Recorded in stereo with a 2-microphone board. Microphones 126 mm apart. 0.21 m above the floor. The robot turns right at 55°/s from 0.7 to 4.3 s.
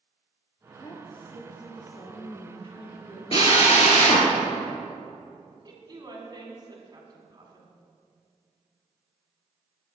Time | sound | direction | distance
0.8 | a woman speaking | 25° left | 3 m
3.3 | a drill | 55° left | 2.5 m
5.7 | a woman speaking | 35° right (ahead or behind) | 2.0 m